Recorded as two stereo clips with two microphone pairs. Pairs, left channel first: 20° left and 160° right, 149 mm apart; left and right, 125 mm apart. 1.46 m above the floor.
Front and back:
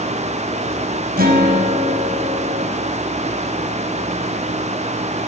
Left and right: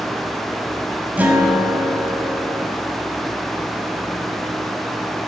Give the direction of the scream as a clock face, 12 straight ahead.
I don't hear a scream.